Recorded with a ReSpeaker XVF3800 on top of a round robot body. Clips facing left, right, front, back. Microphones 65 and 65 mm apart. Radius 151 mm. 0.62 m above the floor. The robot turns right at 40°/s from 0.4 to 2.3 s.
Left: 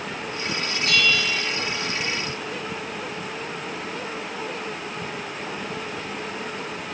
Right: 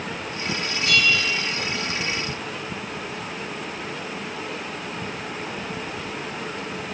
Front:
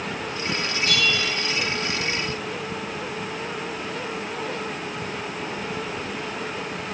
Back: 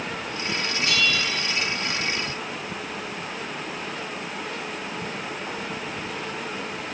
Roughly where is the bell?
Ahead left.